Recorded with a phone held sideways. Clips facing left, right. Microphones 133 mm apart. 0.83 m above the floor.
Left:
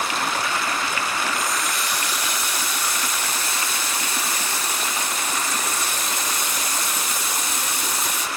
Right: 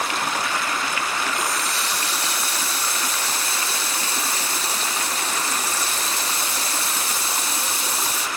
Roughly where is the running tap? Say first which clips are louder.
Even; right.